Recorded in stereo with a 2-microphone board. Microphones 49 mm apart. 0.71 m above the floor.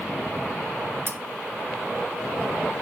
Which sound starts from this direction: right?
Cutlery clinking, at 1.1 s.